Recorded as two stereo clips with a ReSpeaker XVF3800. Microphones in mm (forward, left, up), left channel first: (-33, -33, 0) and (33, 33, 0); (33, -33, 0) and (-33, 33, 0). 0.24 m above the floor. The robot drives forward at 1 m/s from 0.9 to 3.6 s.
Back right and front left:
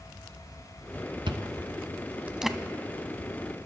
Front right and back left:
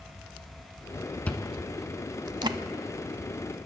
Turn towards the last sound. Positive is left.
turn(degrees=165)